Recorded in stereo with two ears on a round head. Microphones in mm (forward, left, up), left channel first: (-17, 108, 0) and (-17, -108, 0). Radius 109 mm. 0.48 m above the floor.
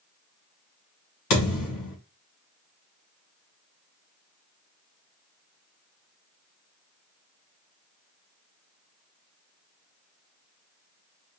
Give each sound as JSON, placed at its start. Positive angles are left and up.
{"t": 1.3, "sound": "a thud", "side_deg": 80, "distance_m": 2.5}